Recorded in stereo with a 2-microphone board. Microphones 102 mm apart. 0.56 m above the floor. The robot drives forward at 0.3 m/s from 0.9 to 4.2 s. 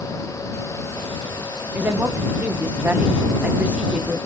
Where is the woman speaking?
20° right (ahead or behind), 0.6 m; by 4.2 s 10° right (ahead or behind), 0.9 m.